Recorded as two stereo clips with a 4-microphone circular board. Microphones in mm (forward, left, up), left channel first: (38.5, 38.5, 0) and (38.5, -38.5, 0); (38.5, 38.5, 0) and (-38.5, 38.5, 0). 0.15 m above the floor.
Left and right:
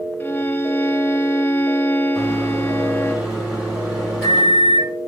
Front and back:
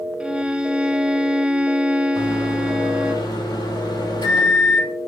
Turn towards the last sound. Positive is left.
turn(degrees=-10)